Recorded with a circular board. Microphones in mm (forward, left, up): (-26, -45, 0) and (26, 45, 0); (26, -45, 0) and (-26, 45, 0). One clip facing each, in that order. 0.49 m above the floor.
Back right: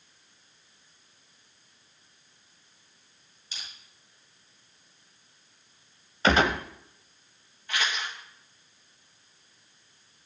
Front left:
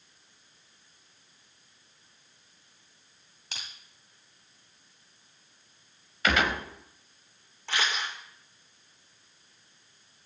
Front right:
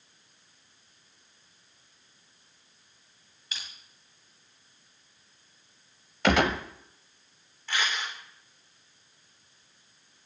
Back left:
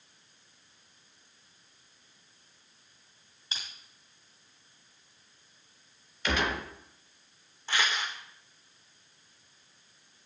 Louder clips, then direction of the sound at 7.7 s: Even, even; 65° left.